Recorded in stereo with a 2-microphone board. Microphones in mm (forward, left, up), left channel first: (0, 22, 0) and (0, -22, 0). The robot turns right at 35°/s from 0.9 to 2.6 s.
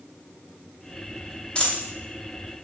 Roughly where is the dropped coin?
Left.